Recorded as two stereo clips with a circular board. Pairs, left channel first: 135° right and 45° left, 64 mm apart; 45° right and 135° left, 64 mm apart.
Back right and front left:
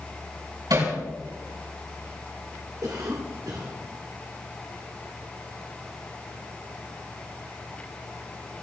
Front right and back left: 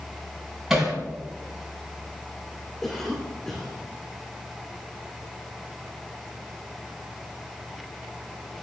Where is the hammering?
55° left, 6.5 m.